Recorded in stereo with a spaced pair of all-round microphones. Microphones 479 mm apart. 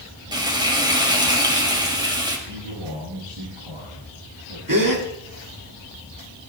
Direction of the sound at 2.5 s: 90° right.